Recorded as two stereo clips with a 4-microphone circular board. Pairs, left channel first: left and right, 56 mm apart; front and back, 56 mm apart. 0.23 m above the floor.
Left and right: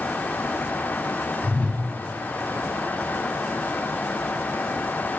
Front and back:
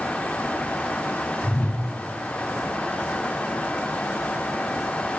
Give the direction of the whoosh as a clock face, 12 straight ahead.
11 o'clock.